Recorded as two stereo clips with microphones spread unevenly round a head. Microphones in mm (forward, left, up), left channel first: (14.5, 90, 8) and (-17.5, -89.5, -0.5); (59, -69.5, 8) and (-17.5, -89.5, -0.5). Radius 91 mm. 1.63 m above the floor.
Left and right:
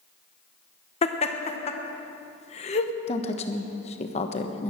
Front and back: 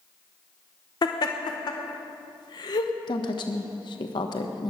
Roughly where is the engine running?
I don't hear an engine running.